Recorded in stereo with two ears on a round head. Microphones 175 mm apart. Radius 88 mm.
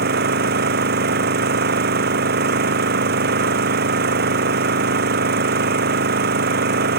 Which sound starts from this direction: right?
An engine running, at 0.0 s.